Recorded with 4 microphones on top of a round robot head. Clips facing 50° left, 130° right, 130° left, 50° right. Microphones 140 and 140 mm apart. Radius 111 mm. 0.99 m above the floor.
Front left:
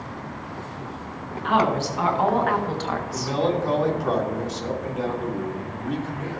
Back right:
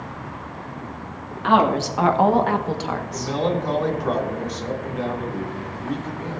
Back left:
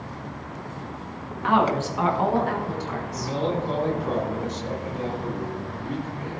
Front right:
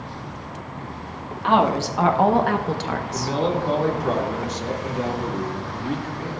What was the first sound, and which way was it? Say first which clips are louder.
A woman speaking: back right 3 dB, front right 3 dB; 115° right.